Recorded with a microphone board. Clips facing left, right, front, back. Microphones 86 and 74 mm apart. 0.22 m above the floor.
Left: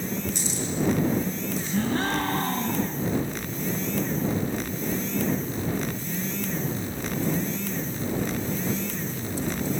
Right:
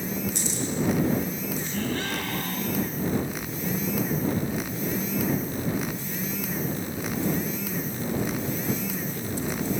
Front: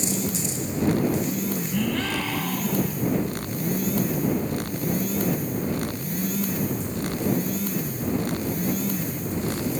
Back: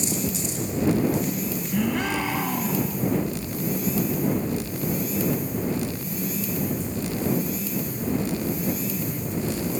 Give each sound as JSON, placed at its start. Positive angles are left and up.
{"t": 1.7, "sound": "a gasp", "azimuth_deg": 120}